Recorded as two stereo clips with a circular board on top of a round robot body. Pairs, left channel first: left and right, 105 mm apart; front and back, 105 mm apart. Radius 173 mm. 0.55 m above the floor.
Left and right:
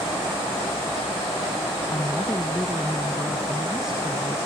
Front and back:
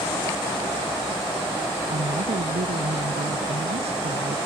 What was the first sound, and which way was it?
A woman speaking, 160° left.